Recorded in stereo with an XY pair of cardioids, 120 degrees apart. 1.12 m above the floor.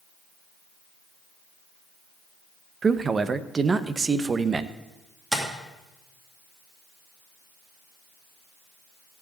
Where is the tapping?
15° right, 2.5 m.